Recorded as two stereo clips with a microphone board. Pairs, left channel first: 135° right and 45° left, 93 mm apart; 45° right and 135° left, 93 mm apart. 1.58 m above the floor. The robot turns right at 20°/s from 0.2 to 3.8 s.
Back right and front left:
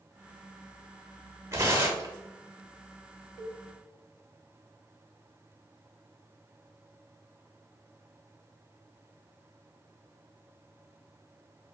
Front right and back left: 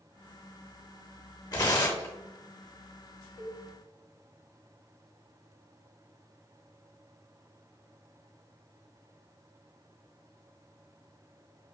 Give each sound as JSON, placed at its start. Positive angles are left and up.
{"t": 1.5, "sound": "tearing paper", "azimuth_deg": -5, "distance_m": 0.7}
{"t": 3.4, "sound": "a cowbell", "azimuth_deg": 120, "distance_m": 1.2}